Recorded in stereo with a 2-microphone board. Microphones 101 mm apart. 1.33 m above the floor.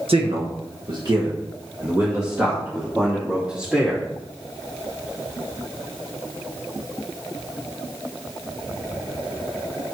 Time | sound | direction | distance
0.1 | a man speaking | 70° right (ahead or behind) | 1.2 m